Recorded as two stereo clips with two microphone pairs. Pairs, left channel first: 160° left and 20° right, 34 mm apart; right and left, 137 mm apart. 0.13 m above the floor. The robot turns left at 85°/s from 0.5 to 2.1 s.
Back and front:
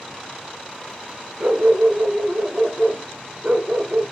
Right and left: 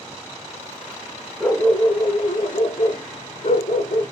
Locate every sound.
1.4 s a dog barking: 10° right, 0.8 m; by 4.0 s 70° right, 0.8 m